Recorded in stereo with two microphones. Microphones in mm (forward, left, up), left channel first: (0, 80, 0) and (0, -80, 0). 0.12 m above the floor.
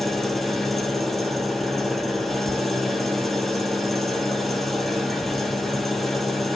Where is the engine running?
Centre (ahead or behind), 0.8 m.